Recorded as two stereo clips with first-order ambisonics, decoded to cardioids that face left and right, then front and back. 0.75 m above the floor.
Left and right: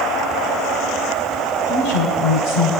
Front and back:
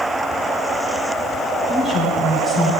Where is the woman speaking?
95° left, 5.5 m; by 2.7 s 105° left, 6 m.